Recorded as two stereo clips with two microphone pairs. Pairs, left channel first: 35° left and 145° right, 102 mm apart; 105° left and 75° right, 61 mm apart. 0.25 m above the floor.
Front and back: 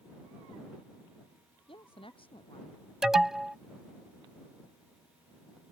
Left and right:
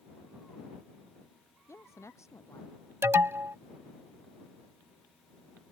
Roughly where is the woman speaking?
Ahead left.